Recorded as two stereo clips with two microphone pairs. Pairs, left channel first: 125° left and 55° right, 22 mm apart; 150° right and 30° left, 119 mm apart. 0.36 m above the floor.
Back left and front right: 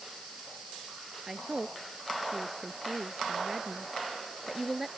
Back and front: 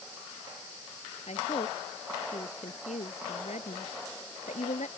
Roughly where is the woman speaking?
Behind right.